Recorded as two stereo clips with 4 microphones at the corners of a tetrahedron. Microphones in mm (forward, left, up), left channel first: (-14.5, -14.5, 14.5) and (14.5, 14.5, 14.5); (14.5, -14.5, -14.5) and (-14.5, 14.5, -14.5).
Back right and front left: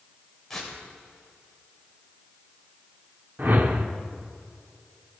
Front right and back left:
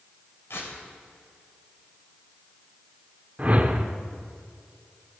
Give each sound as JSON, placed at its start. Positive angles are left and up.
{"t": 0.5, "sound": "tearing paper", "azimuth_deg": -50, "distance_m": 2.5}
{"t": 3.4, "sound": "a whoosh", "azimuth_deg": 80, "distance_m": 0.7}